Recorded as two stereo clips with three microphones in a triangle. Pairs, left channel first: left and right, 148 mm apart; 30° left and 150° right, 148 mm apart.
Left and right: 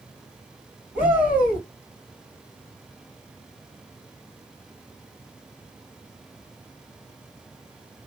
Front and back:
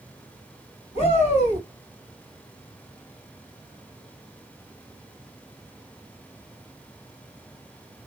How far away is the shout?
About 3 m.